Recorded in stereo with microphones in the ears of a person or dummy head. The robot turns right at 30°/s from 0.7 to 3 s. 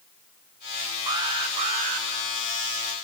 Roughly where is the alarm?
Behind.